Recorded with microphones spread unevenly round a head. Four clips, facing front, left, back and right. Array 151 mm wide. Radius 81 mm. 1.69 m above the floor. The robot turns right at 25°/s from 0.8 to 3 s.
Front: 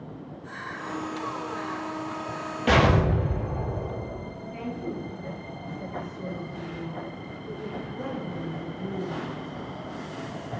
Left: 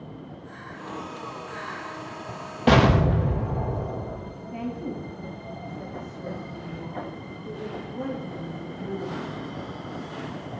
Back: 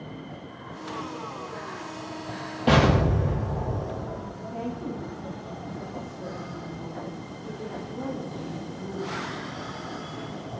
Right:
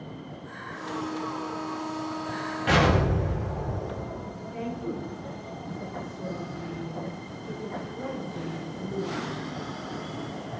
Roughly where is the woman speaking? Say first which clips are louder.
Left 1 dB, even; behind left.